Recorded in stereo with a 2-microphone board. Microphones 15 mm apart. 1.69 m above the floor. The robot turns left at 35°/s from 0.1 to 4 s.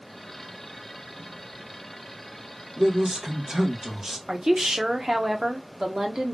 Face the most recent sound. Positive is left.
turn(degrees=-60)  # may be behind; listen again after turning